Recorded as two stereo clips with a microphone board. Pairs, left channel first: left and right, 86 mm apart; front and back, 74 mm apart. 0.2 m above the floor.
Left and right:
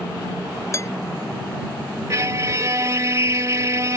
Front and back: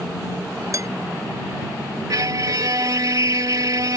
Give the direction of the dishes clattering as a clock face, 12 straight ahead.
7 o'clock.